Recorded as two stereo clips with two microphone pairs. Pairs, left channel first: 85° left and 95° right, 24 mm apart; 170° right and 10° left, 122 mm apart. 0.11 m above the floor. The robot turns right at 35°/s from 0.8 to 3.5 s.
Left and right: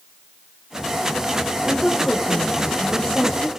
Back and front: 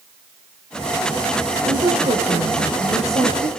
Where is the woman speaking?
25° right, 3.5 m; by 3.5 s 40° left, 3.5 m.